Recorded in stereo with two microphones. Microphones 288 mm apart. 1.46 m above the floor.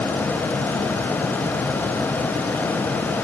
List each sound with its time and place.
Only background noise.